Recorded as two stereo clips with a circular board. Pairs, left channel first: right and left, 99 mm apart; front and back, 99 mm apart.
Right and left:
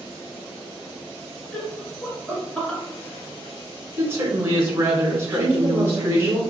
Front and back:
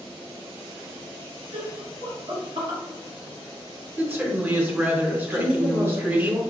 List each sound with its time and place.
1.5 s laughter: 175° right, 1.6 m
4.0 s a woman speaking: 130° left, 1.3 m
5.3 s a woman speaking: 150° left, 1.8 m